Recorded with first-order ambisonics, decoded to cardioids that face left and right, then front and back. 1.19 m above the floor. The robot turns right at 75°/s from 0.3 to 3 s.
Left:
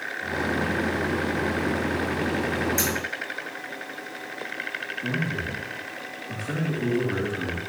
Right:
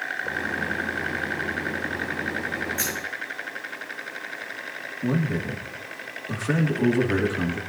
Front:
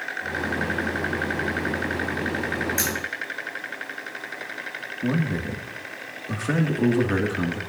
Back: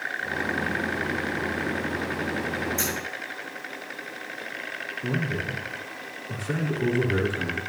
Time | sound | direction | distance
2.8 | scissors | 40° left | 6 m
5.0 | a man speaking | 25° right | 2 m